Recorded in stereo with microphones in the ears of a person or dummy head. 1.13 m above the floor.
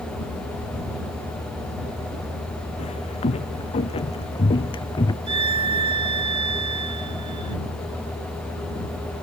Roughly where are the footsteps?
Left.